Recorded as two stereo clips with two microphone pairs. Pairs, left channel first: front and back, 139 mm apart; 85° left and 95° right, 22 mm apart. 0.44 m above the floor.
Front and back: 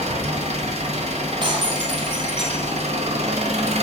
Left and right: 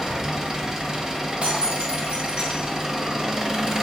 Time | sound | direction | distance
0.0 | an engine running | 155° right | 1.4 m
1.4 | breaking glass | 125° right | 2 m